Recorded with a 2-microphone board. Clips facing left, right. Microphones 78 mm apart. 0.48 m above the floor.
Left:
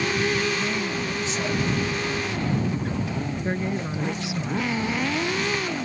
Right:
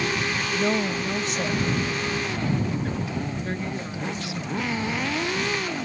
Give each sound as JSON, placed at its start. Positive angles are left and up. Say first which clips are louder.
{"t": 0.5, "sound": "a woman speaking", "louder": "right 3 dB", "side_deg": -60}
{"t": 3.4, "sound": "a woman speaking", "louder": "left 3 dB", "side_deg": 20}